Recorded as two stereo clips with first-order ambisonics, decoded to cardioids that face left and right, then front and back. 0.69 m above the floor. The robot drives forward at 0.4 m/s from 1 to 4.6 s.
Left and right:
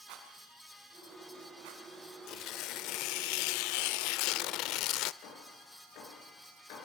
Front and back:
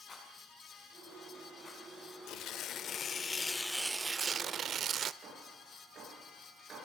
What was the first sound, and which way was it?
A rattle, 75° right.